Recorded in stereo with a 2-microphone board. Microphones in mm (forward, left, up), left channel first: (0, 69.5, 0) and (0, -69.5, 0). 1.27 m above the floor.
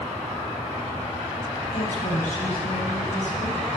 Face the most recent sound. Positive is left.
turn(degrees=85)